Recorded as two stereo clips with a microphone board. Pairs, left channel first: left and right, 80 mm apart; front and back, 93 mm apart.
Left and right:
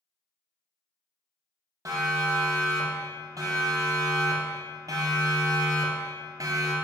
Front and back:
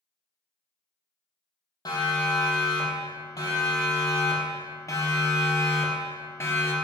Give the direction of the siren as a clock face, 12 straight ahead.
2 o'clock.